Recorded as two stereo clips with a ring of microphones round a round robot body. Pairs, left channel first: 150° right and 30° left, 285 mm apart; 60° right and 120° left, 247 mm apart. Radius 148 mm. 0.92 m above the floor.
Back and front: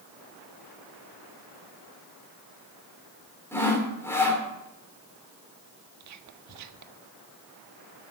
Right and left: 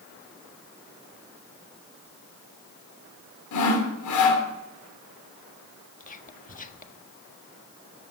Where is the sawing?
70° right, 3 m.